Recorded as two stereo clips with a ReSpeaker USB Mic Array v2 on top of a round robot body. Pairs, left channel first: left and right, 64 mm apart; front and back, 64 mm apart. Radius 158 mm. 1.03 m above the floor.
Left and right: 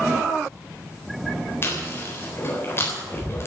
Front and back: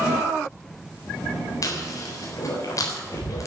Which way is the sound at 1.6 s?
40° left.